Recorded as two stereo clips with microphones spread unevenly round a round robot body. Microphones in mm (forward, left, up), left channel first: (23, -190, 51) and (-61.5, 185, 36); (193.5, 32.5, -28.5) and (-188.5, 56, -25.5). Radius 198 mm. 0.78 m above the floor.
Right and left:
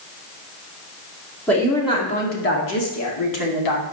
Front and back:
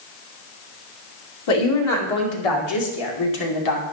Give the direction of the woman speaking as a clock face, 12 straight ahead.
12 o'clock.